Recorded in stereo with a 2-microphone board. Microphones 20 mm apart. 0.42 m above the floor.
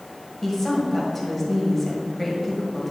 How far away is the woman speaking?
About 1.7 m.